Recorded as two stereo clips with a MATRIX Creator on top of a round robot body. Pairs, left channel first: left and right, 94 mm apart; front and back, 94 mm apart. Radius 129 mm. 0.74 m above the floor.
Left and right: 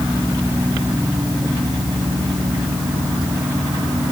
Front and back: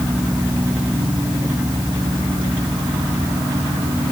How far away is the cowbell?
I don't hear a cowbell.